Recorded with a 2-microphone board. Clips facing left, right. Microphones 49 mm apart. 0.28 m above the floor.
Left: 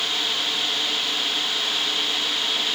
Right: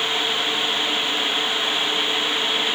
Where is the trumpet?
I don't hear a trumpet.